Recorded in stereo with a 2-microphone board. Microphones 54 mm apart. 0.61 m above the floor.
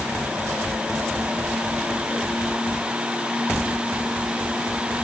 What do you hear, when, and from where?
Only background noise.